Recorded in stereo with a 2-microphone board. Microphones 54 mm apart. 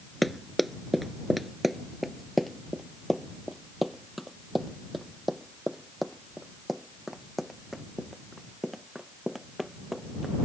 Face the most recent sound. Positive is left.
turn(degrees=0)  # may be behind; listen again after turning